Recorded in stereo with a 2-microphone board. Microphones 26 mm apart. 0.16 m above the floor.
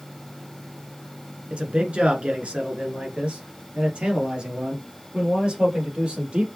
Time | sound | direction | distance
1.5 | a man speaking | 50° right (ahead or behind) | 1.6 m